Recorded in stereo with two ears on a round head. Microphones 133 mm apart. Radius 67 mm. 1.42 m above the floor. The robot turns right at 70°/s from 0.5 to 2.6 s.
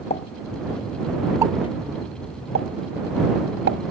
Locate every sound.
0.1 s a pop: 45° left (ahead or behind); by 3.8 s 75° right (ahead or behind)